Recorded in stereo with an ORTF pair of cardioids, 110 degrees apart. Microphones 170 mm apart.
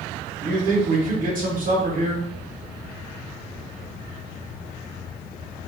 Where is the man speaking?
55° right, 1.6 m.